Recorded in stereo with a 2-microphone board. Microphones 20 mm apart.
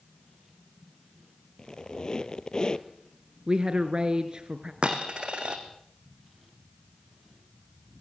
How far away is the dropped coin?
About 3 m.